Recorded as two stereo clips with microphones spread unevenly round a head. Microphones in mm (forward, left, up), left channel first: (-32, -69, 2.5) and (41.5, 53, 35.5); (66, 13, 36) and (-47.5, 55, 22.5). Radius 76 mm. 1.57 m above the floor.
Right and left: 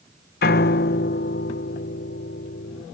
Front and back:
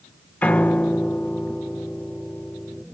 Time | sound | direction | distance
0.4 | a piano | 100° right | ?